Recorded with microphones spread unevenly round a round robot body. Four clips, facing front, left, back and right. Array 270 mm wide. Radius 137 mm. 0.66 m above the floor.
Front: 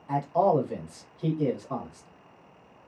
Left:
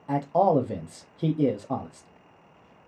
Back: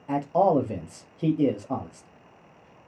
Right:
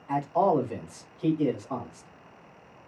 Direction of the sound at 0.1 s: 135° left.